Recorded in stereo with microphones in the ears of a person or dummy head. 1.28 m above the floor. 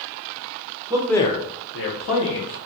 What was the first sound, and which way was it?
A man speaking, 20° right (ahead or behind).